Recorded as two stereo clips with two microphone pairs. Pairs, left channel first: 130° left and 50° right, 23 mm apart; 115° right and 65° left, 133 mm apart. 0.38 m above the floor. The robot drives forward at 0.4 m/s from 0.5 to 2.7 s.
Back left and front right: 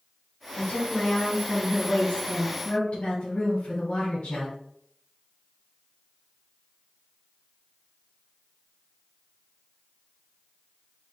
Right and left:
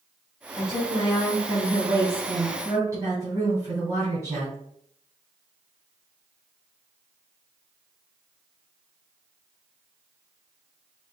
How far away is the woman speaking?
About 2.5 m.